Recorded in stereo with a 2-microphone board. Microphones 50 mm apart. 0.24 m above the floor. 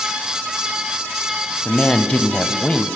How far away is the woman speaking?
About 1.8 m.